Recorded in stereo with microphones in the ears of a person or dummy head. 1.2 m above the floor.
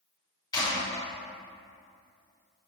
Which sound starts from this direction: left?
A clap, at 0.5 s.